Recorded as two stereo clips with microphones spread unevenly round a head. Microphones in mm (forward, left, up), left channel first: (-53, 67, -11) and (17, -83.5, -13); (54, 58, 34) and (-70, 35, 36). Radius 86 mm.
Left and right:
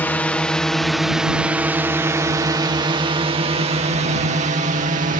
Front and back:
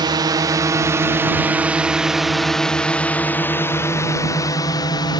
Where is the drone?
175° right; by 5.2 s 35° right.